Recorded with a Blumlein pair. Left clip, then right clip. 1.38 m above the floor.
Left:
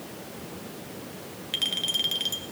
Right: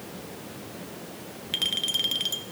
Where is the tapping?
I don't hear tapping.